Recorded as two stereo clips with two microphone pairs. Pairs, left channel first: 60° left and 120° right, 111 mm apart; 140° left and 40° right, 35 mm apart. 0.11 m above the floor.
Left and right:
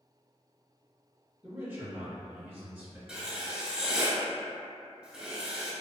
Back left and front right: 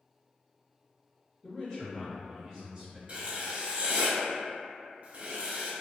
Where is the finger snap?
I don't hear a finger snap.